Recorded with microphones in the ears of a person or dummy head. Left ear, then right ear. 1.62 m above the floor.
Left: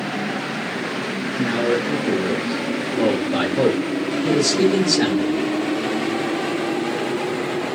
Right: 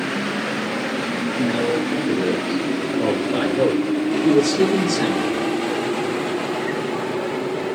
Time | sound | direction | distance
1.4 | a man speaking | 50° left (ahead or behind) | 2.0 m